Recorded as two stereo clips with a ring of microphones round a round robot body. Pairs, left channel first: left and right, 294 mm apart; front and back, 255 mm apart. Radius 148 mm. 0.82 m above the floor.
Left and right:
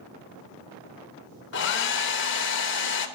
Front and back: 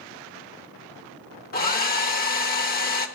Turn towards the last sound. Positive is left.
turn(degrees=50)